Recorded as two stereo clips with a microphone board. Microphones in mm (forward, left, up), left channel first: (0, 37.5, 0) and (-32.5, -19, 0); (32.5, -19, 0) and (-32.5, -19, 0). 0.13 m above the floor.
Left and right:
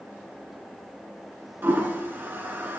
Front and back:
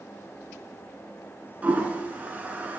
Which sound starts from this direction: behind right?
A toilet flushing, at 1.6 s.